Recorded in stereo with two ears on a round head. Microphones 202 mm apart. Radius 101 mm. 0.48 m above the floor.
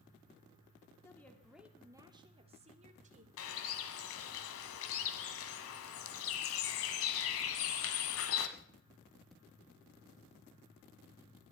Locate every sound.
1.0 s a woman speaking: 10° left (ahead or behind), 1.3 m; by 3.3 s 35° right (ahead or behind), 2 m
3.4 s a bird: 65° left (ahead or behind), 1.3 m